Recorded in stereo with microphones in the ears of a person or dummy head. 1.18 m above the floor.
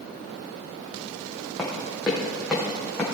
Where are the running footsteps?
Centre (ahead or behind), 3 m; by 3.0 s 5° left (ahead or behind), 4 m.